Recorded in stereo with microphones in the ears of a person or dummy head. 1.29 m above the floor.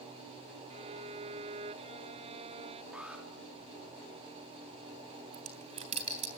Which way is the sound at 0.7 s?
30° right (ahead or behind).